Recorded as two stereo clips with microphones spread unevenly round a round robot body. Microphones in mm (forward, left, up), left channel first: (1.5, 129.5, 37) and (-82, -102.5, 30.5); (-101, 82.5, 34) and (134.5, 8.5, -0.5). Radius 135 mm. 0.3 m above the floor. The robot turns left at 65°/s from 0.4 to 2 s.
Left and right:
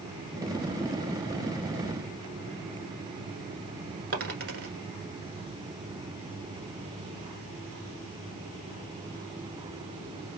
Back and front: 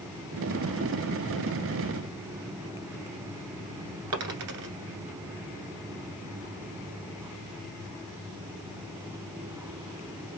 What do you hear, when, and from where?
4.1 s a dropped coin: 55° right, 1.2 m